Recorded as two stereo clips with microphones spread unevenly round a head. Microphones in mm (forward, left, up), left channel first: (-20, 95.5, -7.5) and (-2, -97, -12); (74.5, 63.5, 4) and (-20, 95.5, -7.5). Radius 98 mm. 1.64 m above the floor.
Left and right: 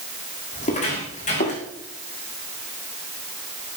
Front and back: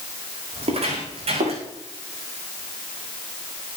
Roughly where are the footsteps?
Behind left.